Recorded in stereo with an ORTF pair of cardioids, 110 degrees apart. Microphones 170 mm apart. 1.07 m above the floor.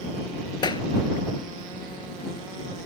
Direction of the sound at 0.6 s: 25° left.